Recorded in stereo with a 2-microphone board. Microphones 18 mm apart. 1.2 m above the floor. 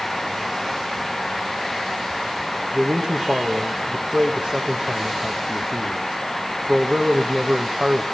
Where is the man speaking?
70° right (ahead or behind), 1.4 m.